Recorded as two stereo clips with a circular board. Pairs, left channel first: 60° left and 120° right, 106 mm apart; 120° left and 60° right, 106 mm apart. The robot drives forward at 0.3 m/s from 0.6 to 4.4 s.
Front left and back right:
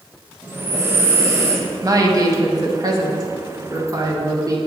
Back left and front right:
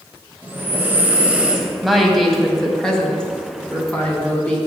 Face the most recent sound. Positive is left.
turn(degrees=-165)